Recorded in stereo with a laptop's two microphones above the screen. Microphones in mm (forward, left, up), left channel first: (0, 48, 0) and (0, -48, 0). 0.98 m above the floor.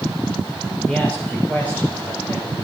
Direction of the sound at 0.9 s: 10° left (ahead or behind).